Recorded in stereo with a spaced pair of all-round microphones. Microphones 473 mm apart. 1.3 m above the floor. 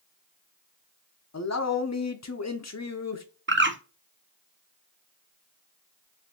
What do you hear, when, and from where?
1.3 s a man speaking: 35° left (ahead or behind), 0.5 m
3.5 s a bird: 25° right (ahead or behind), 0.5 m